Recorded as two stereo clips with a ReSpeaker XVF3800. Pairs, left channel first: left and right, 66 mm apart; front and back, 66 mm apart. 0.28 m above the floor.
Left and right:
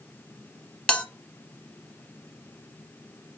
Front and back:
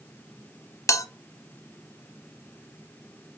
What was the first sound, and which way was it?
A bell, 15° left.